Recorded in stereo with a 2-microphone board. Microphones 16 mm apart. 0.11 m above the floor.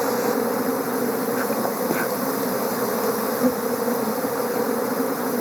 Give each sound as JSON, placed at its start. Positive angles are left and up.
{"t": 0.0, "sound": "an insect", "side_deg": -15}